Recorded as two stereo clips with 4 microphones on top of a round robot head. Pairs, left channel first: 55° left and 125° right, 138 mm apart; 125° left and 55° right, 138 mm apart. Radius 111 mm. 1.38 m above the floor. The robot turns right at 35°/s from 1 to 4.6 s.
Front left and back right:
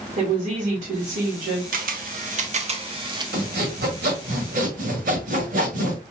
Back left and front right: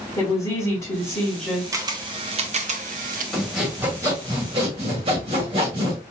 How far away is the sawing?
About 1.7 m.